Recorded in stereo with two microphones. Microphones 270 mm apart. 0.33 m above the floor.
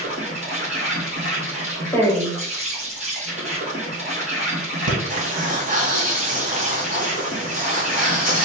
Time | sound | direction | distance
0.0 | an insect | 30° right (ahead or behind) | 2.5 m
1.9 | a woman speaking | 10° left (ahead or behind) | 1.4 m
4.9 | breathing | 30° right (ahead or behind) | 1.4 m